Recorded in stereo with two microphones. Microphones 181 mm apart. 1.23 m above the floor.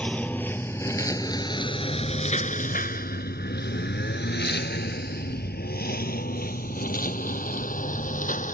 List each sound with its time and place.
0.0 s a lawn mower: 5° left (ahead or behind); by 8.5 s 45° left (ahead or behind)